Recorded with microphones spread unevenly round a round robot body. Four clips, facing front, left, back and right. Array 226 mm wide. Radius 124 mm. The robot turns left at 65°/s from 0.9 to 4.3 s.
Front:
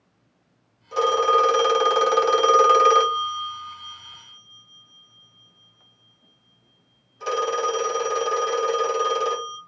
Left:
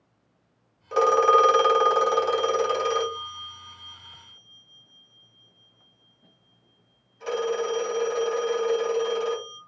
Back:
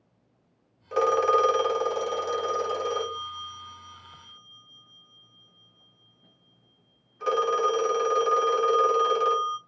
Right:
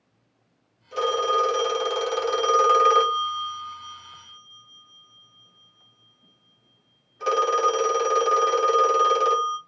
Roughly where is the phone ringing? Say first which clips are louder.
Left 5 dB, front 3 dB; left.